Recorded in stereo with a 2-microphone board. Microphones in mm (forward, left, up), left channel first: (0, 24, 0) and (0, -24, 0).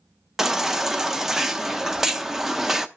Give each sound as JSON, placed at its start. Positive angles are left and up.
{"t": 0.4, "sound": "a baby crying", "side_deg": -10, "distance_m": 0.7}